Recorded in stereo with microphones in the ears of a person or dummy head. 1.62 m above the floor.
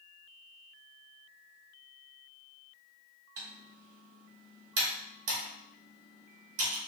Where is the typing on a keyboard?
60° right (ahead or behind), 1.9 m.